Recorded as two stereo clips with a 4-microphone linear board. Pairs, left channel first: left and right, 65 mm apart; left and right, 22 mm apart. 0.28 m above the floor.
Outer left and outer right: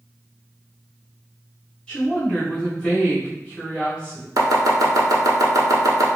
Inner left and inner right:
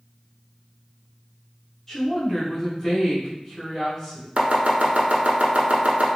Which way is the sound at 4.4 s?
70° right (ahead or behind).